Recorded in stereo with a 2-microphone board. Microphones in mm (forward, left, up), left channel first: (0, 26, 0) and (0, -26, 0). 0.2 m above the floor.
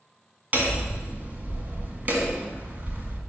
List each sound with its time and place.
0.5 s hammering: 35° right (ahead or behind), 1.5 m